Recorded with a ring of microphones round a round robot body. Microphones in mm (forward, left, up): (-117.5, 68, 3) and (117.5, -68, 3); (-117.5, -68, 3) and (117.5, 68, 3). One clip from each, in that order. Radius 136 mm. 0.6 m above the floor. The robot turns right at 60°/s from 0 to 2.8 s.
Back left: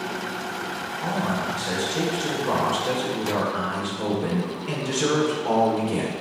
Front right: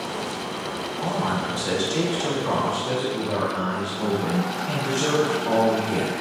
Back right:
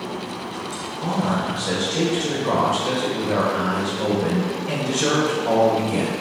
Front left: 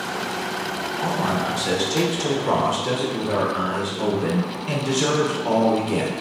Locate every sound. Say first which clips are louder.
1.0 s a man speaking: front right 1 dB, even; 30° right, 1.8 m; by 6.1 s 75° left, 1.8 m